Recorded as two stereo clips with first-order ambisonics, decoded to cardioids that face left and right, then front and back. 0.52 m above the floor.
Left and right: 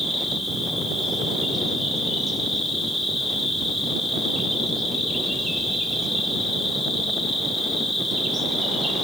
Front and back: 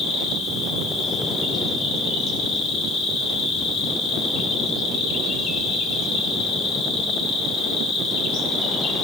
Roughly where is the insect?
Ahead.